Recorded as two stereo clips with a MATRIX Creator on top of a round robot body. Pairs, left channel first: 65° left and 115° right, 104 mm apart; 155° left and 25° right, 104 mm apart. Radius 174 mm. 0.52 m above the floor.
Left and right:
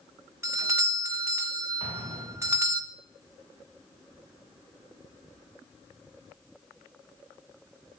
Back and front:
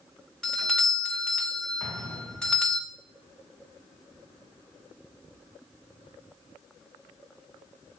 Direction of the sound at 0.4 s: 125° right.